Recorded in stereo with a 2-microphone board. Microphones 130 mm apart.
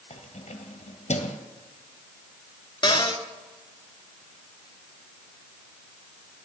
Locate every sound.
0.1 s keys jangling: 60° left (ahead or behind), 1.6 m
2.8 s a cupboard door: 35° left (ahead or behind), 1.3 m